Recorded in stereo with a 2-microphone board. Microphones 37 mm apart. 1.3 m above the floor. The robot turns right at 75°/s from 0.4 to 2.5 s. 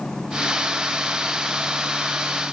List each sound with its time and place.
Only background noise.